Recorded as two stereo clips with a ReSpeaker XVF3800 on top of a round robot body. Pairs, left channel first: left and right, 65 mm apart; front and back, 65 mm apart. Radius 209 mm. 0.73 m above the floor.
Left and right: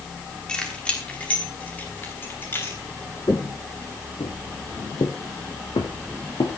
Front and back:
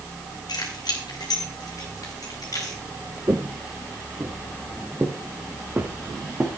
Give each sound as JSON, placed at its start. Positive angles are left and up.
{"t": 0.5, "sound": "keys jangling", "azimuth_deg": 15, "distance_m": 4.5}
{"t": 3.3, "sound": "footsteps", "azimuth_deg": 130, "distance_m": 0.8}